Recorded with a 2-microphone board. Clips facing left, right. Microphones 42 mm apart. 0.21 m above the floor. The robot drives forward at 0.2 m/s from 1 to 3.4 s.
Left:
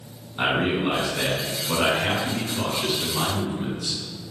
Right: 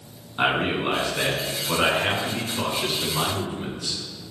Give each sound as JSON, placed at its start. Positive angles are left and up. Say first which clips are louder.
{"t": 0.4, "sound": "a man speaking", "louder": "even", "side_deg": -15, "distance_m": 2.5}